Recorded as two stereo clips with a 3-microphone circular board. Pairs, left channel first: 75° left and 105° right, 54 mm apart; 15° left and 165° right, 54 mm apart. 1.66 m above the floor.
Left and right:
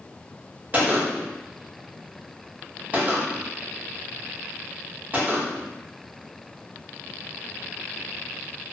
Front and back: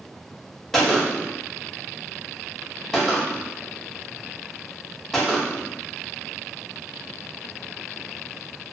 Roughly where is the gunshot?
Ahead right.